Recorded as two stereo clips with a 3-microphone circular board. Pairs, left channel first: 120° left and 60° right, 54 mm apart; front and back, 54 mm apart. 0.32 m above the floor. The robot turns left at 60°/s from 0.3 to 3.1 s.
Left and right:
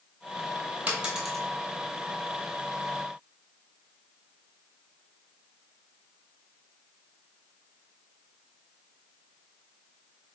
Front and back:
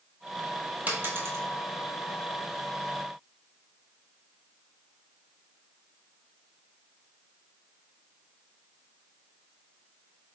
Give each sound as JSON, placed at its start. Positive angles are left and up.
{"t": 0.9, "sound": "a dropped coin", "azimuth_deg": -120, "distance_m": 1.0}